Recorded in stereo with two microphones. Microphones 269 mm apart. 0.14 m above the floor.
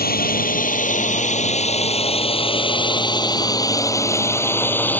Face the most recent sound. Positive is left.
turn(degrees=5)  # may be behind; listen again after turning